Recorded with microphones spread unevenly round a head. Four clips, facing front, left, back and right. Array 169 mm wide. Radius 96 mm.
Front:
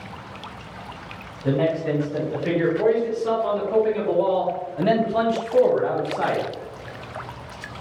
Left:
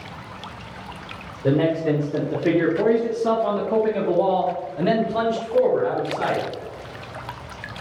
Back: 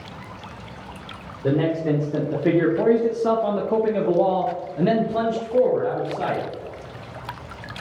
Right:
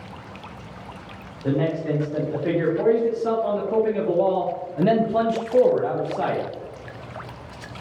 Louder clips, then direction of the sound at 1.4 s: Left 4 dB, back 1 dB; 145° left.